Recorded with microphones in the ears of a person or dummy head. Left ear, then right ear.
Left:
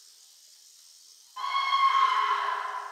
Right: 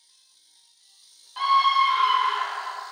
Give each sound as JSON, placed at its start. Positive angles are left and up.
{"t": 1.4, "sound": "a scream", "side_deg": -60, "distance_m": 1.5}